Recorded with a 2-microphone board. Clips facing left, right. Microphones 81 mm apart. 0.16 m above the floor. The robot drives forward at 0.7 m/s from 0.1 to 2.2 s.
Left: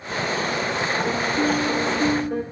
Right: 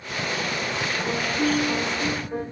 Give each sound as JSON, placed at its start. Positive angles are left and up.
{"t": 1.0, "sound": "a piano", "side_deg": 70, "distance_m": 2.5}